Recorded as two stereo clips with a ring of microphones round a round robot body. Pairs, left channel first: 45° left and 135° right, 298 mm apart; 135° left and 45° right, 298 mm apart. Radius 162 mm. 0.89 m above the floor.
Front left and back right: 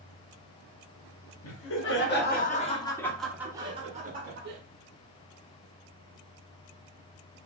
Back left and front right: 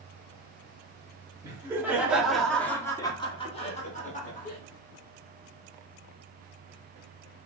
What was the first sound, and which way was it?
Laughter, 30° left.